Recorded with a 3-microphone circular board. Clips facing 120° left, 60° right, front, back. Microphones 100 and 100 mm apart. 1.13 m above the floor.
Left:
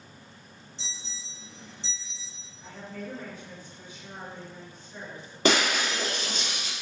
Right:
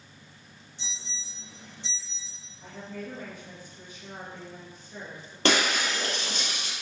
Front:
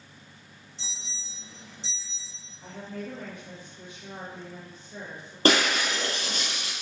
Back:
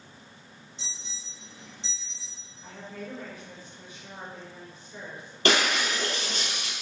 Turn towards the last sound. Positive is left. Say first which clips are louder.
# left 1 dB, front 2 dB
turn(degrees=35)